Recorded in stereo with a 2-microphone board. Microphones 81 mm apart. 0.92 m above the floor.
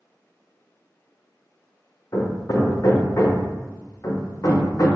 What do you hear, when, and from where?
2.1 s hammering: 40° left (ahead or behind), 0.6 m